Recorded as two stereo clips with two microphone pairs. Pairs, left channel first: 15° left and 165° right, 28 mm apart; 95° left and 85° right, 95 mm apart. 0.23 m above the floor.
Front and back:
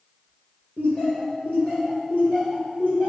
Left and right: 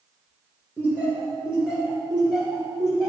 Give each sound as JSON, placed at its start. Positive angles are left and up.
{"t": 0.8, "sound": "laughter", "azimuth_deg": -15, "distance_m": 2.5}